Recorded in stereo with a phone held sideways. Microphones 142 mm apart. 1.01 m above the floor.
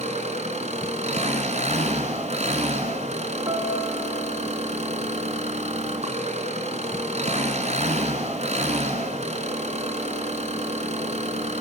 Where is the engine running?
50° right (ahead or behind), 4.5 m.